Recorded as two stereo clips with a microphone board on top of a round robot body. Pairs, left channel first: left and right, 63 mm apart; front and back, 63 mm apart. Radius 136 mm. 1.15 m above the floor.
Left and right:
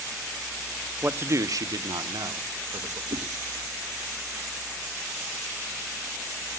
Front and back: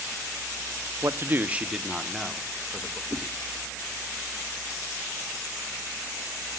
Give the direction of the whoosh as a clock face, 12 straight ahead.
4 o'clock.